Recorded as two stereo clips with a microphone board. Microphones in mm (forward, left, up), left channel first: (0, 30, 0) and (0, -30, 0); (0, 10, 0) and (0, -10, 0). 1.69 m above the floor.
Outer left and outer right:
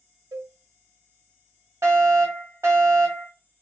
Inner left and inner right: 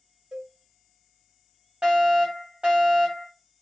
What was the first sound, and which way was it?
A cowbell, 65° right (ahead or behind).